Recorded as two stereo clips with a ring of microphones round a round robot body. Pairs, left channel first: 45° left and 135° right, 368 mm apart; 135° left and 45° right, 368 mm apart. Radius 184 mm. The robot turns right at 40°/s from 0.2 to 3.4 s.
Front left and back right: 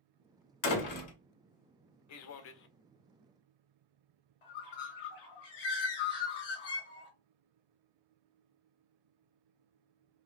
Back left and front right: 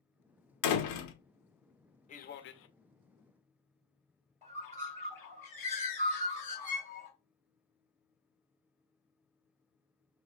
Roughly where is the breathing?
I don't hear breathing.